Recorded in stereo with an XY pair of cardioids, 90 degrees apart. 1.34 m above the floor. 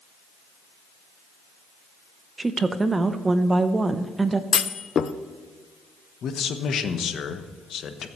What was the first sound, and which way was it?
A woman speaking, 30° right.